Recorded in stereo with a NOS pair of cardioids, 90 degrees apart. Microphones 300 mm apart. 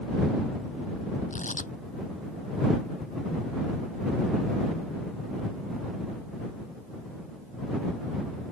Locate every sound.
1.3 s tearing paper: 25° left